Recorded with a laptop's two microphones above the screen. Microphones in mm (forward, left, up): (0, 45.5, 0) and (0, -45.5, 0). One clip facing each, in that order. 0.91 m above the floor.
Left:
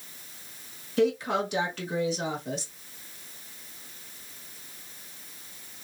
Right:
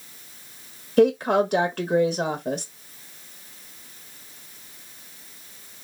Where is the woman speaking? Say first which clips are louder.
Right 7 dB; 50° right (ahead or behind), 0.8 m.